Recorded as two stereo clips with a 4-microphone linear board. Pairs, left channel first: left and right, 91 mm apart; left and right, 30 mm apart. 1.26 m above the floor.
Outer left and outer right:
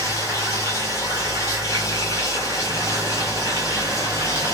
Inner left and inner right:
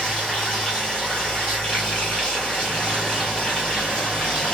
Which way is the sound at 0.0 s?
35° left (ahead or behind).